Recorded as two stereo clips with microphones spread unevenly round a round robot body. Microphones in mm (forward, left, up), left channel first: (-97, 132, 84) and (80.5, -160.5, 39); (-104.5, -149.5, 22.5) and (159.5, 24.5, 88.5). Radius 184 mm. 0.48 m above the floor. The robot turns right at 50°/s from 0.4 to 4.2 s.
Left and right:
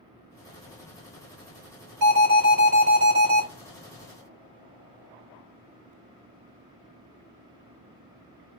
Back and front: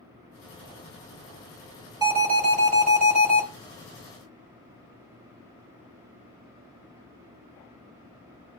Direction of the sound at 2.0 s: 45° right.